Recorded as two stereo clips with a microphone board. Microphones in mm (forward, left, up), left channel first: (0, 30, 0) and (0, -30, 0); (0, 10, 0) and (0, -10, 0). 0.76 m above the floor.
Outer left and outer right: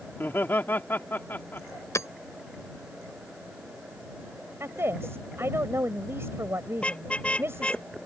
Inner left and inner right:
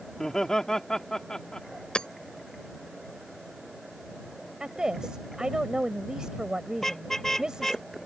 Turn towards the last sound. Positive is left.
turn(degrees=20)  # may be behind; listen again after turning